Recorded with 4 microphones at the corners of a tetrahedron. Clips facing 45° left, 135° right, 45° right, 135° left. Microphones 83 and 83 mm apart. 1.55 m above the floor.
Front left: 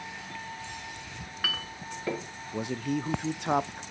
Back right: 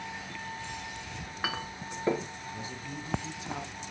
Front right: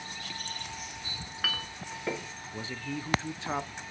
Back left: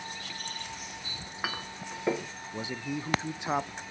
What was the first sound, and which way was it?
A clink, 175° right.